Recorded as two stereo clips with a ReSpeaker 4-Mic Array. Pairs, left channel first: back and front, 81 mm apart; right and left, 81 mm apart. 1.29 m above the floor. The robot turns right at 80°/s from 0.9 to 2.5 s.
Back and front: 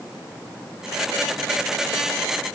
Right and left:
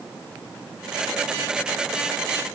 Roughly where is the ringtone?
I don't hear a ringtone.